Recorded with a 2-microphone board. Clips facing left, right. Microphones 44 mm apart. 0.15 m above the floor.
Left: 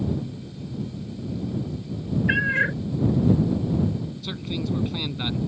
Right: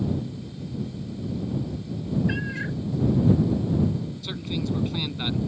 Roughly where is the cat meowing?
Left.